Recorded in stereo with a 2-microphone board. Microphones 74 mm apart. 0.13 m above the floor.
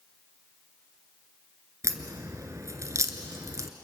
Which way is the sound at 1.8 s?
45° right (ahead or behind).